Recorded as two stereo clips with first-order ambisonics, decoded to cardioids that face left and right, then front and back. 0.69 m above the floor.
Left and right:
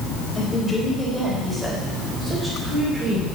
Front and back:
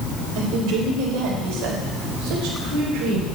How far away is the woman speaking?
About 3 m.